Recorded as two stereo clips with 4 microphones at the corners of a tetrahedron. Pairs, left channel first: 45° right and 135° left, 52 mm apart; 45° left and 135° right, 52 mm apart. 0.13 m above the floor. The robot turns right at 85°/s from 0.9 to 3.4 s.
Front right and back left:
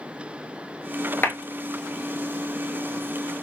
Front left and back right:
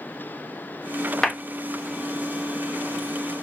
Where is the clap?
25° right, 1.2 m; by 1.4 s 15° right, 1.2 m.